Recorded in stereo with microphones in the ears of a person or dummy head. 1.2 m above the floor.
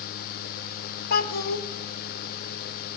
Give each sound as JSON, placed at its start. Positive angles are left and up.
{"t": 1.1, "sound": "a child speaking", "side_deg": 55, "distance_m": 1.0}